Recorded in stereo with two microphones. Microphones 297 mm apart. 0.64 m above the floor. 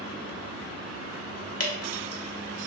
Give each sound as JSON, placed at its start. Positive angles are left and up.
{"t": 1.6, "sound": "dripping", "side_deg": 55, "distance_m": 0.6}